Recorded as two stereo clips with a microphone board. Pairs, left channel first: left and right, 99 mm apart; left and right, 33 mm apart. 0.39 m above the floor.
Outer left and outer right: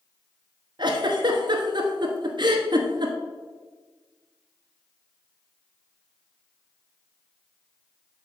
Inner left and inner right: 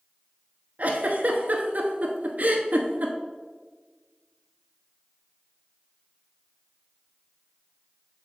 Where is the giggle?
55° right (ahead or behind), 1.0 m.